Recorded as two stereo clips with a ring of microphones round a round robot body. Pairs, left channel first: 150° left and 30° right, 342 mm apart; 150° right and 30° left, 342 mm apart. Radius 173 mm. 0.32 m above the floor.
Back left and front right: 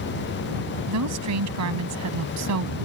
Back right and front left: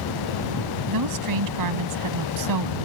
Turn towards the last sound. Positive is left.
turn(degrees=10)